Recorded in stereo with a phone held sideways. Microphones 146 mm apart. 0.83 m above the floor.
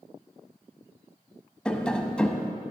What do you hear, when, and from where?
1.6 s tapping: 5° left (ahead or behind), 0.7 m